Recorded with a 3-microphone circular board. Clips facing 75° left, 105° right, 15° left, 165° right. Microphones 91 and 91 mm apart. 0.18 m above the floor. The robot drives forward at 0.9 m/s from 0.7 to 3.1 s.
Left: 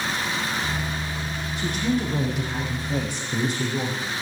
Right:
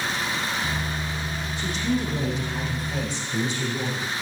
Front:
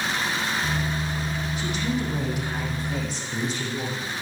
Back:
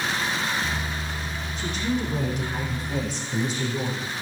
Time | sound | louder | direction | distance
1.6 | a woman speaking | left 2 dB, back 2 dB | 95° left | 7.5 m